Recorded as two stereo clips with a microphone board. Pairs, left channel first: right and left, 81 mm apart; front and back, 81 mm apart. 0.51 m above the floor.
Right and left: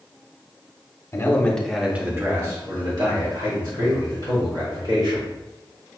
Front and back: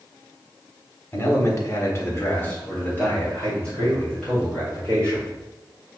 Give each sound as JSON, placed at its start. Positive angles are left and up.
{"t": 1.1, "sound": "a man speaking", "azimuth_deg": -45, "distance_m": 1.2}